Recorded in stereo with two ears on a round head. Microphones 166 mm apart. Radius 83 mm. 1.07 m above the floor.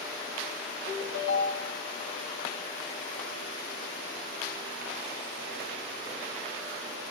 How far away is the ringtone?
About 1.9 m.